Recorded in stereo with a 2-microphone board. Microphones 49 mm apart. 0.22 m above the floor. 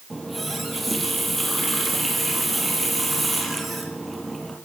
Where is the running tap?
Centre (ahead or behind), 3.5 m.